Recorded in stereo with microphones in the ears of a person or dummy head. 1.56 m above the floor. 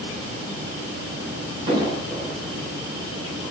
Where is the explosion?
30° right (ahead or behind), 1.1 m.